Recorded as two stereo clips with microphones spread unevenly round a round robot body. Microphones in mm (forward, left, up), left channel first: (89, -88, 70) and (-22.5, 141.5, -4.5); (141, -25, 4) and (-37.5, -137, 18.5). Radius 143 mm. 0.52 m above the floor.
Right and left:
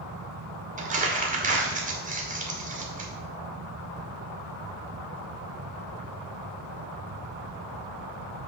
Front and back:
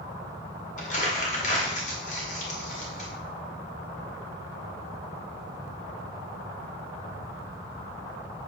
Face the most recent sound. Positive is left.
turn(degrees=80)